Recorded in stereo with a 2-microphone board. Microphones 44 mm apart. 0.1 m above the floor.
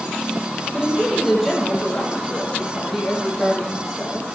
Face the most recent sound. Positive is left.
turn(degrees=-5)  # may be behind; listen again after turning